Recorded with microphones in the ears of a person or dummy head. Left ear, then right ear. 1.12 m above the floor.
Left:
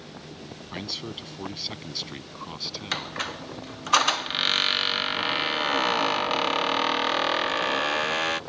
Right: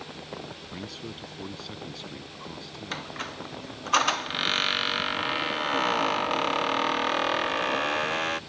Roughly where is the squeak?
Centre.